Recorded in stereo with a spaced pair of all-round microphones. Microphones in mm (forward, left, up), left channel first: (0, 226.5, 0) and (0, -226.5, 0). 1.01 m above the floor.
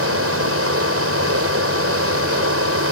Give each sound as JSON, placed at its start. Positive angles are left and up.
{"t": 0.0, "sound": "a fan", "side_deg": -30}